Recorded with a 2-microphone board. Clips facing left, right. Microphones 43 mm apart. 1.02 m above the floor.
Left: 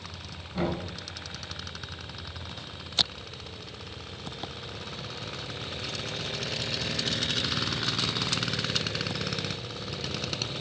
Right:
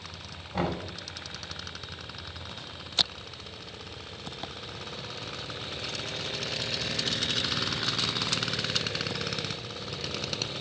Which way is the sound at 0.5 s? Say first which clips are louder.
Even; 65° right (ahead or behind).